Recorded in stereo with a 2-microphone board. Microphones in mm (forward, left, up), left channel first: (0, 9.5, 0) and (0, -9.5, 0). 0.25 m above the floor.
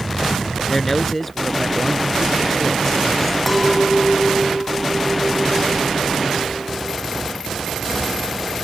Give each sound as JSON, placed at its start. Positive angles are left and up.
{"t": 0.7, "sound": "a man speaking", "side_deg": 5}
{"t": 3.5, "sound": "a clink", "side_deg": 0}